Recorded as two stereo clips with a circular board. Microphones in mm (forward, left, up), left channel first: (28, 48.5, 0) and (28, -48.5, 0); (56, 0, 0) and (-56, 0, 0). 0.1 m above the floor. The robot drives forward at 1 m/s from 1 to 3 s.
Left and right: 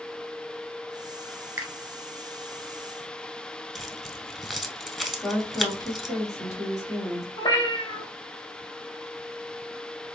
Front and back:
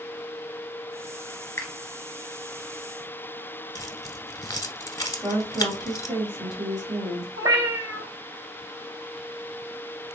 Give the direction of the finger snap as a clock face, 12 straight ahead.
1 o'clock.